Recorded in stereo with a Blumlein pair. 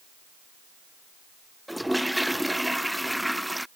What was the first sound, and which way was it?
A toilet flushing, straight ahead.